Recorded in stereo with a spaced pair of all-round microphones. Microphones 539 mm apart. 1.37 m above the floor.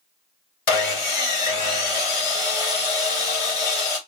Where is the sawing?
65° left (ahead or behind), 0.9 m.